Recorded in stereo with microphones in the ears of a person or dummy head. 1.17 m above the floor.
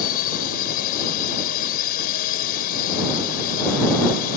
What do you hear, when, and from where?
0.0 s a drone: 50° left (ahead or behind)